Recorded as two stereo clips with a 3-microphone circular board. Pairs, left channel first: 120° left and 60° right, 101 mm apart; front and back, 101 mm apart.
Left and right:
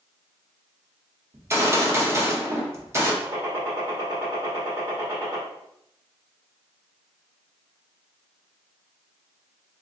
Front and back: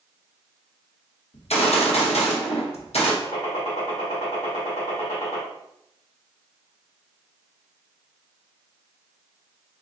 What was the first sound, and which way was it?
A gunshot, 5° left.